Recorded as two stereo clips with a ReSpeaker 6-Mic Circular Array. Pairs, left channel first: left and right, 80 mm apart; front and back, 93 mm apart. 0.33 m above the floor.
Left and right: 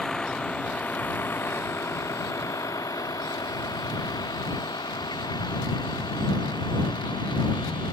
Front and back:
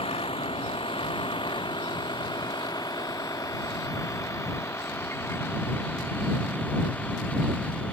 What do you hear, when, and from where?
0.0 s a vehicle: 5° left; by 8.0 s 75° left